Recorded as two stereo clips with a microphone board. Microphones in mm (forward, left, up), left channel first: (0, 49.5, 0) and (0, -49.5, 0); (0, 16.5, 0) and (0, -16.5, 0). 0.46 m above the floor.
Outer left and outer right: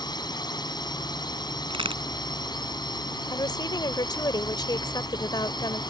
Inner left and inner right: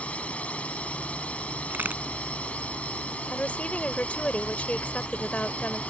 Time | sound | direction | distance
0.0 | a drone | 45° left (ahead or behind) | ?
1.7 | a crack | 65° right (ahead or behind) | ?
3.3 | a woman speaking | 45° left (ahead or behind) | ?